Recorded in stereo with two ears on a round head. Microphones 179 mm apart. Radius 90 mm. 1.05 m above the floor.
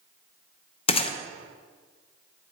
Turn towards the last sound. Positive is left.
turn(degrees=30)  # may be behind; listen again after turning